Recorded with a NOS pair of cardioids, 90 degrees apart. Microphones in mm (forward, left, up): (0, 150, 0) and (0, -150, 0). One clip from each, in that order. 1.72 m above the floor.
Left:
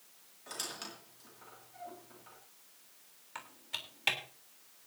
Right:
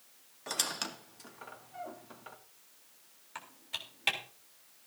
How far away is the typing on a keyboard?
About 3.5 m.